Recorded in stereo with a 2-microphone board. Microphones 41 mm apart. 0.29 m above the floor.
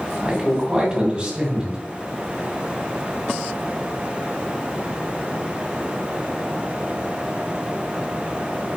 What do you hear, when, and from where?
0.2 s a man speaking: 30° right (ahead or behind), 1.8 m